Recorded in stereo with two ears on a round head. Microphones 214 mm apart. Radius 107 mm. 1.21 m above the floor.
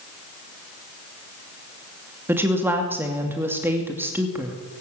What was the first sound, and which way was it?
A woman speaking, 10° right (ahead or behind).